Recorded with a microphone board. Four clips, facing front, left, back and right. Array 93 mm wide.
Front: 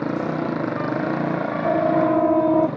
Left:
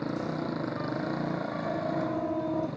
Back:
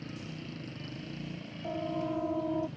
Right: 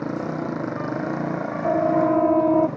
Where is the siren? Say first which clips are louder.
Right 14 dB, front 15 dB; 40° right.